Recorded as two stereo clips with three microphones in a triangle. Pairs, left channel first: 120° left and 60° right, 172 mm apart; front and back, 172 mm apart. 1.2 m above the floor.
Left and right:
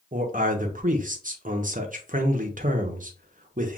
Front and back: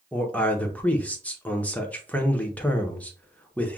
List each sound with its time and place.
0.1 s a man speaking: 80° right, 0.8 m